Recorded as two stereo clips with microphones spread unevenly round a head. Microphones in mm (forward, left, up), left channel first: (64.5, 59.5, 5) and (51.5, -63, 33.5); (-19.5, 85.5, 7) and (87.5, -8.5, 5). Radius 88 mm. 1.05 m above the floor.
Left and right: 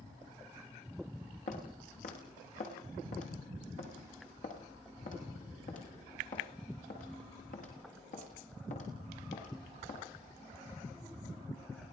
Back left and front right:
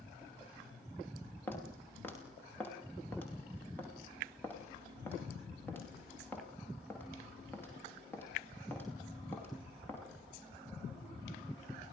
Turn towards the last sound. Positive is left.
turn(degrees=65)